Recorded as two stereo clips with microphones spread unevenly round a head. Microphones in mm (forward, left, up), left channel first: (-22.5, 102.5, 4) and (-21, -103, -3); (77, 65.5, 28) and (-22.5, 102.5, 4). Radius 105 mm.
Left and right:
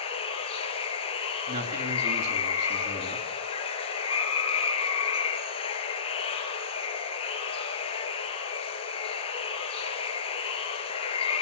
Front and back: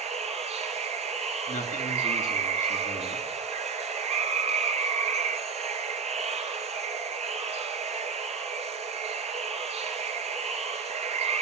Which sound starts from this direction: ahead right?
A man speaking, at 1.5 s.